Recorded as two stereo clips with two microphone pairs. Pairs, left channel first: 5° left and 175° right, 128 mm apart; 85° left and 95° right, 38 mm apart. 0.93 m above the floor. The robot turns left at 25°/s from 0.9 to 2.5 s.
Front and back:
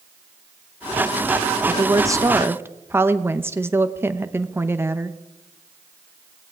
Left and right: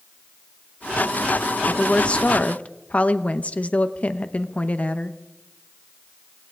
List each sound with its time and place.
1.7 s a woman speaking: 145° left, 0.8 m; by 5.2 s 125° left, 0.8 m